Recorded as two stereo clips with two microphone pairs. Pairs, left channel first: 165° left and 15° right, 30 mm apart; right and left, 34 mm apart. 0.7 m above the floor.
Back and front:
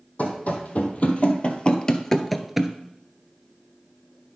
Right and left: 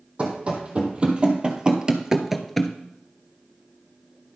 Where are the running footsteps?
145° left, 1.7 m; by 2.7 s 45° right, 0.7 m.